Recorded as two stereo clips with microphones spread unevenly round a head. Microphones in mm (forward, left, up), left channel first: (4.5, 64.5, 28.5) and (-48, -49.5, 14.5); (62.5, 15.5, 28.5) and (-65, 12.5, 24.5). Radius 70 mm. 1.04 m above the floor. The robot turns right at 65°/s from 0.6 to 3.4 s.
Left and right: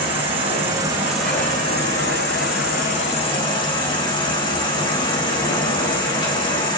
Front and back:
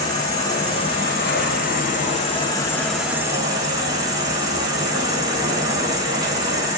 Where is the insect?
60° right, 3.5 m; by 6.8 s 120° left, 3.5 m.